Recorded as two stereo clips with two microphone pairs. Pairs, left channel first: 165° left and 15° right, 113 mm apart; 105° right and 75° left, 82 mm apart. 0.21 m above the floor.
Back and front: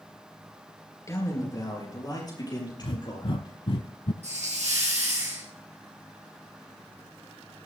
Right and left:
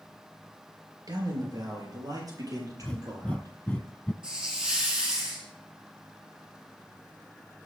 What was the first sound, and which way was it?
A man speaking, 105° left.